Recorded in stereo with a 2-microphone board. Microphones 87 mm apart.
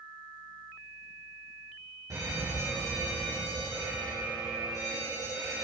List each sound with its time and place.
2.1 s an alarm: 40° right (ahead or behind), 3.5 m